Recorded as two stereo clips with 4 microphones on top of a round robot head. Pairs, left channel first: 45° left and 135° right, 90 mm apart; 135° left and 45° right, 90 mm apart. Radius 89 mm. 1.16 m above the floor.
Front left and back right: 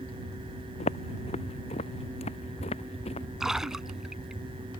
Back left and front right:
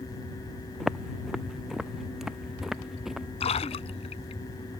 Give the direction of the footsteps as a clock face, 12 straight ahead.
11 o'clock.